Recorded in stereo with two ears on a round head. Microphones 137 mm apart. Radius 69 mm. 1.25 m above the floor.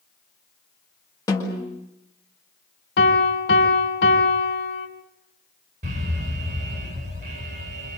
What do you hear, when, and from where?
1.3 s a snare drum: 20° left (ahead or behind), 7 m
3.0 s a piano: 80° left, 3.5 m
5.8 s an alarm: 50° right (ahead or behind), 7 m